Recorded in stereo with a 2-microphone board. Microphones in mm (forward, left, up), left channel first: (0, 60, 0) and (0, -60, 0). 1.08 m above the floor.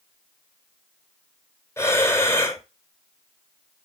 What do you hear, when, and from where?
1.8 s breathing: 20° left (ahead or behind), 1.8 m